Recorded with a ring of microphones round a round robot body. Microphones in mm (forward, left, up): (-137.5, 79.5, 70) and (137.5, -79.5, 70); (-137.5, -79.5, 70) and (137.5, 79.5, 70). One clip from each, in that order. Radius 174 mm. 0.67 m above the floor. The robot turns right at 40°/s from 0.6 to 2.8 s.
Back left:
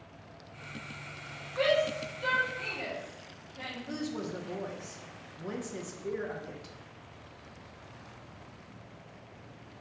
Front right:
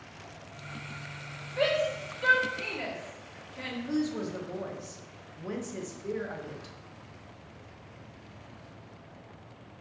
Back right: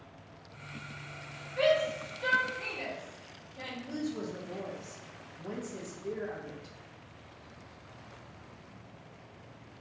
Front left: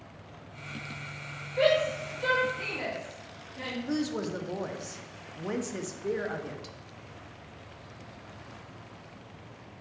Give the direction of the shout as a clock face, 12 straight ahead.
3 o'clock.